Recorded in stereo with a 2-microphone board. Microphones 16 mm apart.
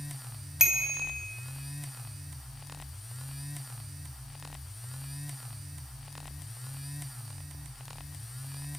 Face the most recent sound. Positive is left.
turn(degrees=-30)  # may be behind; listen again after turning